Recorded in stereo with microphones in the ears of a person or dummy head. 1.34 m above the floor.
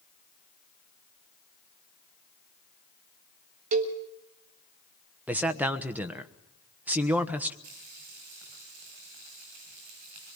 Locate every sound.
3.7 s a cowbell: 30° right (ahead or behind), 1.5 m
5.3 s a man speaking: 5° right (ahead or behind), 1.3 m
7.6 s frying: 60° right (ahead or behind), 9.5 m